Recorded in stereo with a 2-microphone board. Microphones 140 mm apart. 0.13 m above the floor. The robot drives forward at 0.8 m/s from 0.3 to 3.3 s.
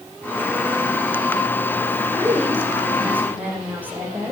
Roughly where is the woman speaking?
Centre.